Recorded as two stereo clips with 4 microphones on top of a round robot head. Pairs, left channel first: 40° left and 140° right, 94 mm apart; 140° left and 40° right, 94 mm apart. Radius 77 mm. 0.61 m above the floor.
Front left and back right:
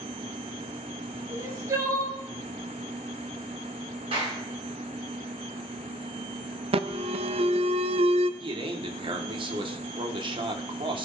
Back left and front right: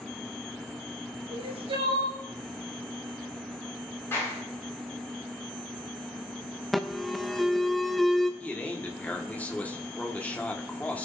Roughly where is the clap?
Behind right.